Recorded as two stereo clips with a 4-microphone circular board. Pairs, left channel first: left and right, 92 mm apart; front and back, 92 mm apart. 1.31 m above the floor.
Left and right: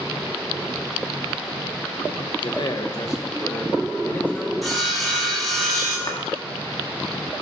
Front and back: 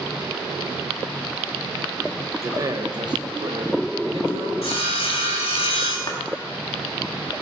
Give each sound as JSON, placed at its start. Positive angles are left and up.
{"t": 2.4, "sound": "a man speaking", "azimuth_deg": 120, "distance_m": 1.0}
{"t": 4.6, "sound": "sawing", "azimuth_deg": 0, "distance_m": 3.0}
{"t": 6.1, "sound": "a clap", "azimuth_deg": 40, "distance_m": 1.5}